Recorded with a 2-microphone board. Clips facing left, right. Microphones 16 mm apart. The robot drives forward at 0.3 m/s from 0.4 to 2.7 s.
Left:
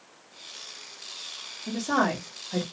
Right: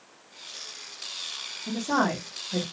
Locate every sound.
1.7 s a woman speaking: 40° left (ahead or behind), 1.5 m; by 2.6 s 35° left (ahead or behind), 1.5 m